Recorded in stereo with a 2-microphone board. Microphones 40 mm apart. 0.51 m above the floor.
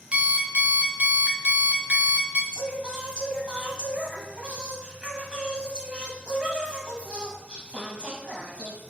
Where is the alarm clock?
25° right (ahead or behind), 0.6 m.